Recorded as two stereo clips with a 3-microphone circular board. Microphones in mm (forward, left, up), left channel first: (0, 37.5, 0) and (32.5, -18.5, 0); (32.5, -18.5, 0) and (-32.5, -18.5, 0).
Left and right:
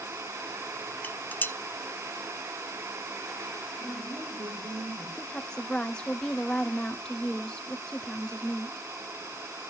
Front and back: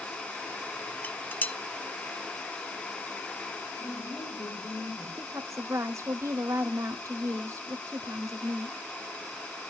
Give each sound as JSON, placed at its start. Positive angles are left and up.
{"t": 1.0, "sound": "dishes clattering", "azimuth_deg": 60, "distance_m": 0.5}
{"t": 3.8, "sound": "a woman speaking", "azimuth_deg": -50, "distance_m": 8.5}
{"t": 5.2, "sound": "a woman speaking", "azimuth_deg": -170, "distance_m": 1.6}